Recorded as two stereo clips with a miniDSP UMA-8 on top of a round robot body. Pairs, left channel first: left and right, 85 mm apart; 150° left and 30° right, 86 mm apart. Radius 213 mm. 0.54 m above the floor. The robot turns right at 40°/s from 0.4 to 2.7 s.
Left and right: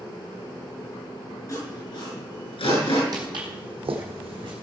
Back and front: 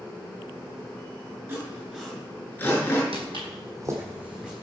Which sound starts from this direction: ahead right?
Footsteps, at 3.1 s.